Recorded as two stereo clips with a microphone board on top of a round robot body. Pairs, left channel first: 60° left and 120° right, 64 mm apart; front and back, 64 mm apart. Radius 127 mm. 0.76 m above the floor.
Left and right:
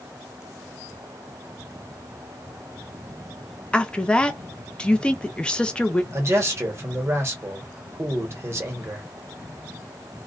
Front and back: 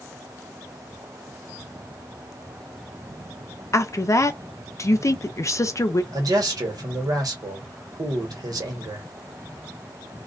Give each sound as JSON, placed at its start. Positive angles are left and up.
{"t": 3.7, "sound": "a woman speaking", "azimuth_deg": -10, "distance_m": 0.7}
{"t": 6.1, "sound": "a man speaking", "azimuth_deg": -165, "distance_m": 1.2}